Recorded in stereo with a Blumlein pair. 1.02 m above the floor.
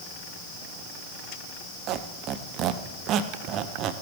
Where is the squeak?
35° right, 0.7 m.